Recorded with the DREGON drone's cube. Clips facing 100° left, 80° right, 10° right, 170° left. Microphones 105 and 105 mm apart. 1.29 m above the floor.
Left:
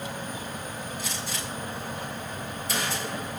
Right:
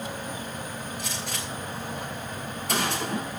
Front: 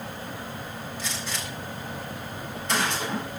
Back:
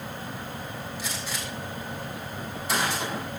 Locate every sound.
1.0 s a gunshot: 110° right, 7.5 m